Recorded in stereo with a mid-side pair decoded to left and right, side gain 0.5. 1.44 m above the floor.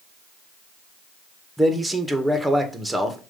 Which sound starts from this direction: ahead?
A man speaking, at 1.6 s.